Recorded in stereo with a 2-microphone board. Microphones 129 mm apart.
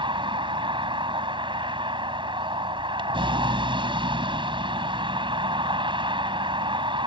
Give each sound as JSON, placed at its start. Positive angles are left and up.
{"t": 0.0, "sound": "a vehicle", "side_deg": -40}